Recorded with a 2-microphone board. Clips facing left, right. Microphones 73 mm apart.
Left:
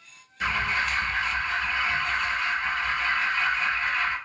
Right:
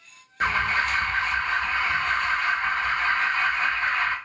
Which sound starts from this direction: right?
An alarm, at 0.4 s.